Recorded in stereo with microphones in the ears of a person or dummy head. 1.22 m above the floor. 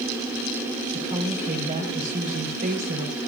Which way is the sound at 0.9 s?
45° right (ahead or behind).